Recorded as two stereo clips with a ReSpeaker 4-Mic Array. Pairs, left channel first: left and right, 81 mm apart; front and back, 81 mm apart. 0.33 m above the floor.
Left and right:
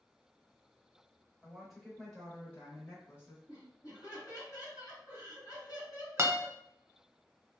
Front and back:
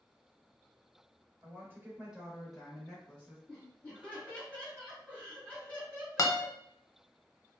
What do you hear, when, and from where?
1.4 s a woman speaking: 165° right, 1.0 m; by 3.4 s 50° left, 1.1 m
3.5 s laughter: 65° left, 1.4 m
6.2 s a guitar: 40° right, 0.5 m